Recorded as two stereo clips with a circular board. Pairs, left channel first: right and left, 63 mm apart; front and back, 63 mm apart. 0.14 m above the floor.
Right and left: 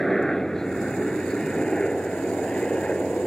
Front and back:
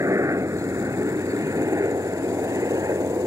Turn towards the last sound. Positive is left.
turn(degrees=-165)